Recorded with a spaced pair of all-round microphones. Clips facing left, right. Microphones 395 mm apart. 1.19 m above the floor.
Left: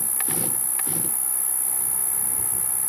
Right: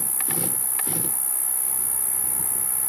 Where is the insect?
30° right (ahead or behind).